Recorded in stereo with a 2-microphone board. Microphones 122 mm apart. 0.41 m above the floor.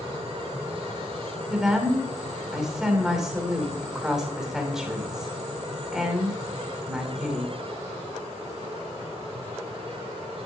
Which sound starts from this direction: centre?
A woman speaking, at 1.5 s.